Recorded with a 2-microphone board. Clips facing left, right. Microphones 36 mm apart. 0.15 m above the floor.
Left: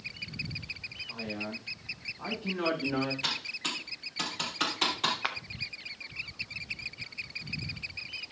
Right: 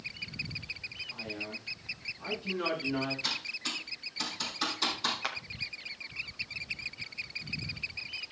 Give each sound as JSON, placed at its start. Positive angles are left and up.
{"t": 1.1, "sound": "a man speaking", "side_deg": 85, "distance_m": 8.5}
{"t": 3.2, "sound": "typing on a keyboard", "side_deg": 75, "distance_m": 4.0}
{"t": 5.2, "sound": "a clap", "side_deg": 15, "distance_m": 1.0}